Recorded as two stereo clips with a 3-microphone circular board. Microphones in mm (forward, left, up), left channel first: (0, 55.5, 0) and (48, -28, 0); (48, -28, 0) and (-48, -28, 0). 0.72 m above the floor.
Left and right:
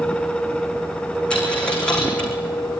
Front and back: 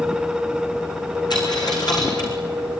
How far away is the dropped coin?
About 5 m.